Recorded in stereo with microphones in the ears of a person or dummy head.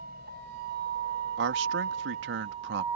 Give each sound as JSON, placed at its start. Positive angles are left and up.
{"t": 0.0, "sound": "a vehicle", "side_deg": -60}
{"t": 1.4, "sound": "a man speaking", "side_deg": -75}